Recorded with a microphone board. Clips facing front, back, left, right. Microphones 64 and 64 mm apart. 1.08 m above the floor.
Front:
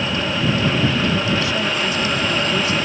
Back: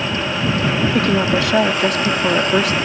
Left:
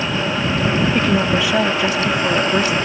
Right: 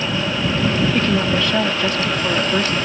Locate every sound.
0.9 s a woman speaking: 170° left